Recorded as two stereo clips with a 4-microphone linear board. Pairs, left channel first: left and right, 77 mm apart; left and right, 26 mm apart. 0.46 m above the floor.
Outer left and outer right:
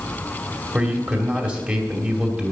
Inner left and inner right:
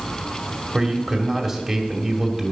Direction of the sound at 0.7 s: 15° right (ahead or behind).